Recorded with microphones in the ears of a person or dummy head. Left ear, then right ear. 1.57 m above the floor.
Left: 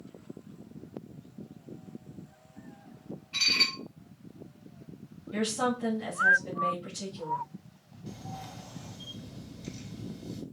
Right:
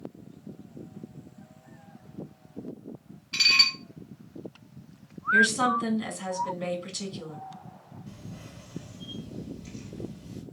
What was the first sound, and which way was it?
Dishes clattering, 40° right (ahead or behind).